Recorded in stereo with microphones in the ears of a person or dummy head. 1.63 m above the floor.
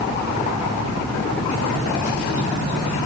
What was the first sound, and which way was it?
Only background noise.